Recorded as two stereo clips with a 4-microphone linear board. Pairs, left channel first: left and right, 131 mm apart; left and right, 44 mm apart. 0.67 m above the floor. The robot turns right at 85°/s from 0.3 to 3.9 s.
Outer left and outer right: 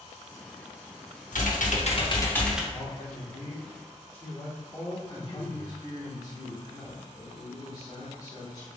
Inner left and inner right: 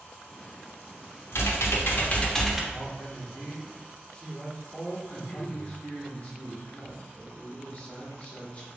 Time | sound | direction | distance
1.3 | typing on a keyboard | 75° left | 0.7 m
2.7 | a man speaking | 55° left | 1.5 m
5.1 | a man speaking | 30° left (ahead or behind) | 1.4 m